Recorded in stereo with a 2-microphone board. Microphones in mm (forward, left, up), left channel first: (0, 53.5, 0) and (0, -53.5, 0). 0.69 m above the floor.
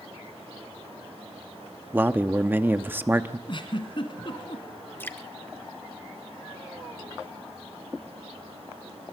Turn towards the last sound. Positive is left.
turn(degrees=20)  # may be behind; listen again after turning